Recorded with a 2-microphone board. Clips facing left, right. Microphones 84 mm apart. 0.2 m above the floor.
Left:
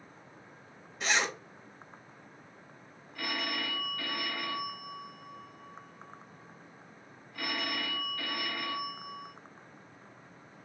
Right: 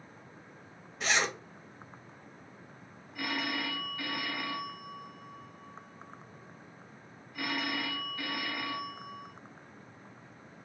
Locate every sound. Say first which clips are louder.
1.0 s a zipper: even; centre (ahead or behind), 0.8 m
3.1 s a phone ringing: right 1 dB; 5° right (ahead or behind), 1.1 m